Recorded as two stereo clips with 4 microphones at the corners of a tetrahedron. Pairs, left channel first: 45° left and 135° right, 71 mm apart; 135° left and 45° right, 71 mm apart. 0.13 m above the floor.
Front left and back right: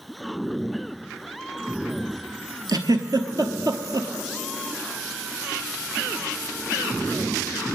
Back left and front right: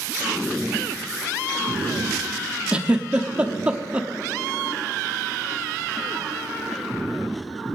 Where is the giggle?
115° right, 0.9 m.